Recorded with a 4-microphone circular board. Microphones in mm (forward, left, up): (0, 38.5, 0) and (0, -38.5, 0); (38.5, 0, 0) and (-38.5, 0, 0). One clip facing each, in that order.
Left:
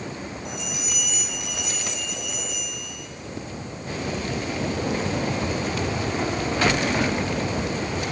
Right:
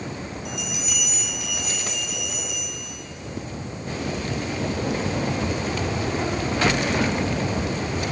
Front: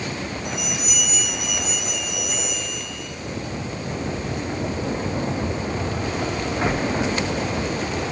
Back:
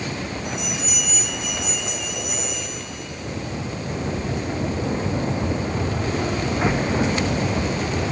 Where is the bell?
35° left, 4.5 m.